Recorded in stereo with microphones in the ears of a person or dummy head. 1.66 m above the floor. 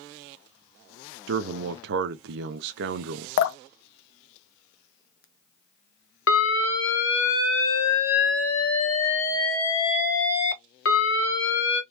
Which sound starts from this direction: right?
A man speaking, at 1.3 s.